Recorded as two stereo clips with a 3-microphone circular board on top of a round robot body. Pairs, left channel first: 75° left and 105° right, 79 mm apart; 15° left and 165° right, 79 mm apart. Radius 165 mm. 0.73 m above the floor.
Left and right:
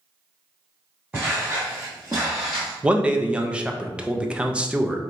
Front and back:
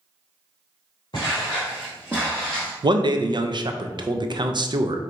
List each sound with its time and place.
1.1 s footsteps: 25° right, 1.0 m; by 2.7 s 165° left, 0.8 m
2.8 s a man speaking: straight behind, 0.6 m